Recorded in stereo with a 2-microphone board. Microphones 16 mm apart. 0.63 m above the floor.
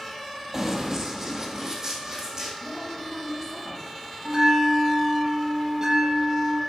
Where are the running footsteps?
35° right (ahead or behind), 1.3 m; by 2.5 s 40° right (ahead or behind), 2.5 m.